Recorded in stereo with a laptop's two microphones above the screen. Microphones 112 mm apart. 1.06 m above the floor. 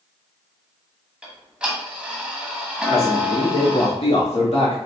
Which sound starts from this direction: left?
A man speaking, at 2.9 s.